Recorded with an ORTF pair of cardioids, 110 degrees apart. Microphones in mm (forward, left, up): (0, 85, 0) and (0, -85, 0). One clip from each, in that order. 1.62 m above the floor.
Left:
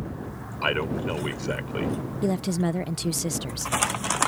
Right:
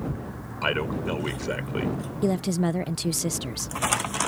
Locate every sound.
0.6 s a man speaking: 5° left; by 2.0 s 5° right
2.2 s a woman speaking: 10° right